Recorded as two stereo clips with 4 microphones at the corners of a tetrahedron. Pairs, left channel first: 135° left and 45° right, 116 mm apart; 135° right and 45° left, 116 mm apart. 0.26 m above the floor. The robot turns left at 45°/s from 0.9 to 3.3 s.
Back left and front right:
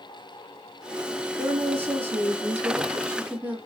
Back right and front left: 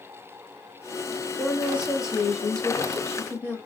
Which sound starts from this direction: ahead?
A woman speaking, at 1.4 s.